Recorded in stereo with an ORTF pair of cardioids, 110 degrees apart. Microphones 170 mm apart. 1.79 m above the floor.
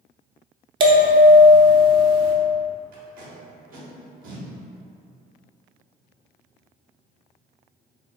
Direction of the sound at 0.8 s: 30° right.